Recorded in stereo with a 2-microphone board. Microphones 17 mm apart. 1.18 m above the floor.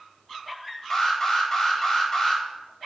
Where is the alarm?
15° left (ahead or behind), 3 m.